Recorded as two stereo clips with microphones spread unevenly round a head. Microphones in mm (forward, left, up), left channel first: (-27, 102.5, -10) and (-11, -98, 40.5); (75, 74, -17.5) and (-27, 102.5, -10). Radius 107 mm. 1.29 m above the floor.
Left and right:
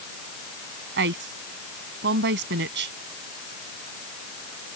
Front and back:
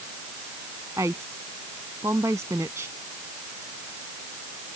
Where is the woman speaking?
120° right.